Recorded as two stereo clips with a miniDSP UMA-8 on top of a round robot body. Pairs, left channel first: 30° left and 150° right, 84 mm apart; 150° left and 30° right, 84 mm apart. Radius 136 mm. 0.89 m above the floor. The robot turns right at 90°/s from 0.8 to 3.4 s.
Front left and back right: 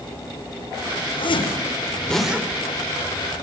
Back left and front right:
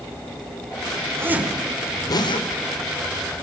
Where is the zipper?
25° left, 4.5 m; by 2.5 s 145° left, 4.5 m.